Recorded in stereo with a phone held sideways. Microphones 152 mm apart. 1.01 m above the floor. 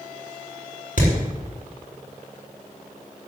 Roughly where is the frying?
No frying in this recording.